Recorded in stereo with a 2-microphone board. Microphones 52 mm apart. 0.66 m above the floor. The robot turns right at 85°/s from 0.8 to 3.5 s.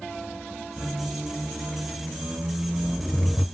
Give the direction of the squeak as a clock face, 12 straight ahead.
6 o'clock.